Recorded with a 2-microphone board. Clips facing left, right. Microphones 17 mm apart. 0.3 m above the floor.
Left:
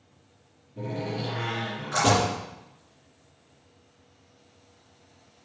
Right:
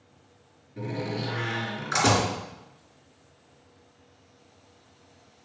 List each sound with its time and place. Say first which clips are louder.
0.8 s a door slam: even; 45° right (ahead or behind), 3.5 m